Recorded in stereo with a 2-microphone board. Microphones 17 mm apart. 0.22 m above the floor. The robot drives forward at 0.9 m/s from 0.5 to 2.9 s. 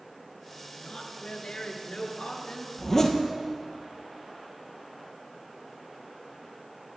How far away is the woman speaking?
About 2.5 m.